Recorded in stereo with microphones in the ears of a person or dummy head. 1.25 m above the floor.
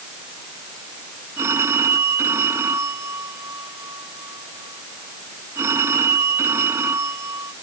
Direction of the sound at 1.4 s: 15° right (ahead or behind).